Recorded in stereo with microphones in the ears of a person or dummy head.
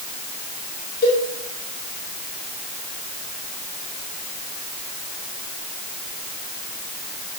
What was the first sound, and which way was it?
A cowbell, 60° left (ahead or behind).